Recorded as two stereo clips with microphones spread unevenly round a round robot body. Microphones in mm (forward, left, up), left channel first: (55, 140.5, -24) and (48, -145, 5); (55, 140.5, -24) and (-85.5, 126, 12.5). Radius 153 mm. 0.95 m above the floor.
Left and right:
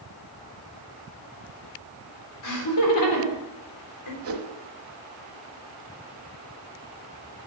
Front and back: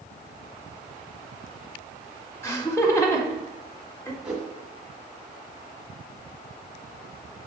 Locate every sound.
2.4 s laughter: 75° left, 3.5 m
4.2 s a whoosh: 105° right, 1.1 m